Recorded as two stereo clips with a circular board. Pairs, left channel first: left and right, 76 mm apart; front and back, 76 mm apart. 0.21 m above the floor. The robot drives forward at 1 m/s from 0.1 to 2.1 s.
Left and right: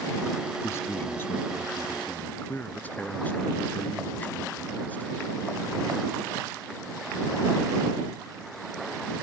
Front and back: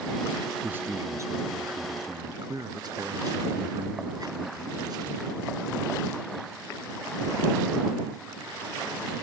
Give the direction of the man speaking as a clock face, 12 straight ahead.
8 o'clock.